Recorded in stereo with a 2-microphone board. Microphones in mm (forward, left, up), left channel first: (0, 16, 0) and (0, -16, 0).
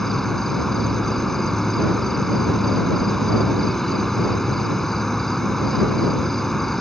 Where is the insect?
15° left (ahead or behind).